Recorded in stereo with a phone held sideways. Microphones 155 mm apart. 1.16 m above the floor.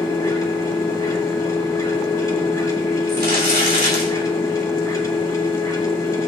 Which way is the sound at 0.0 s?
20° left (ahead or behind).